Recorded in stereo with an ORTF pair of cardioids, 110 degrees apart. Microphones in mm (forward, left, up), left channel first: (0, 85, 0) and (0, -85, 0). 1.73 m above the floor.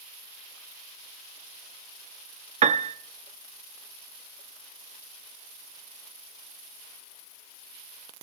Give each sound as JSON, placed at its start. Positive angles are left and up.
{"t": 2.6, "sound": "a piano", "azimuth_deg": -40, "distance_m": 0.8}